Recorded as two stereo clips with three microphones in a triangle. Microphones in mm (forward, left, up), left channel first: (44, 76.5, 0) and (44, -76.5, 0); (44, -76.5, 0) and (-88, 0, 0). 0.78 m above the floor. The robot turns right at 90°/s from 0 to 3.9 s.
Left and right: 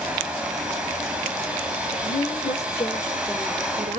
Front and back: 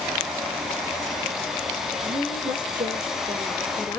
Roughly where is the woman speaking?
Ahead left.